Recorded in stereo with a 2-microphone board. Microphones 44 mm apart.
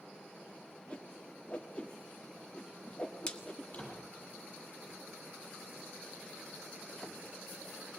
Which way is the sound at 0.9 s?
25° left (ahead or behind).